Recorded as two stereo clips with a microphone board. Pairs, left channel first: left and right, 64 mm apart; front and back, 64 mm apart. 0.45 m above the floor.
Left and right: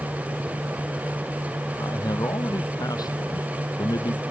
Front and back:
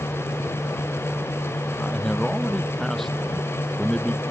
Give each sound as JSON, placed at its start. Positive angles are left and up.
{"t": 1.8, "sound": "a man speaking", "azimuth_deg": 85}